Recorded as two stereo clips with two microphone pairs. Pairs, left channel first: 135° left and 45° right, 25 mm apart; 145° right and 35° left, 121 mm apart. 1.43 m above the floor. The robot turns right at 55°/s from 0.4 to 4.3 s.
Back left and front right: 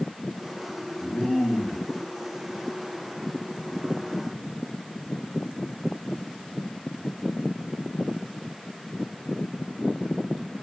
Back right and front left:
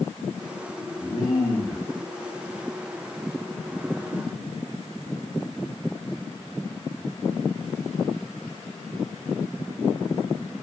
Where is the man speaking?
145° left, 0.7 m; by 1.8 s 165° right, 0.7 m.